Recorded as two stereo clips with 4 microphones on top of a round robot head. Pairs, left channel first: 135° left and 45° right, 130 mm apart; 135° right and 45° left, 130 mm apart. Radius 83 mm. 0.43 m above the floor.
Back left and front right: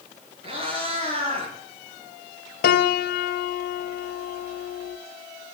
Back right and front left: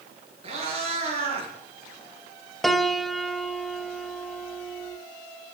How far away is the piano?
About 0.7 m.